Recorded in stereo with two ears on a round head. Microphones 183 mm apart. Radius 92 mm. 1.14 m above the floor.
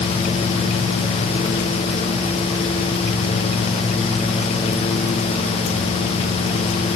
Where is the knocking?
I don't hear knocking.